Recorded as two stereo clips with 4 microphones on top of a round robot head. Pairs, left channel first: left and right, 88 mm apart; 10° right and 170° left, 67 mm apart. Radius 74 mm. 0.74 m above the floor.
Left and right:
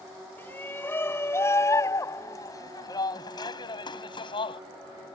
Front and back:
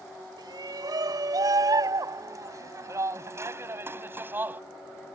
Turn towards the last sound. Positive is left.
turn(degrees=110)